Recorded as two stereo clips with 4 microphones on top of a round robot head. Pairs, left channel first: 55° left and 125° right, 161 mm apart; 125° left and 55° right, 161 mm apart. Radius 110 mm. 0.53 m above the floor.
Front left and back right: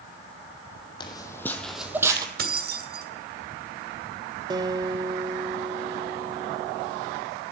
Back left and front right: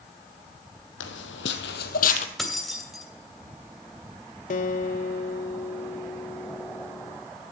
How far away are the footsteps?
About 1.1 m.